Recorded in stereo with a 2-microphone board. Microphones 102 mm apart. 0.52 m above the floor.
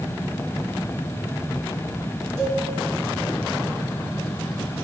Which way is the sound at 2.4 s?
25° right (ahead or behind).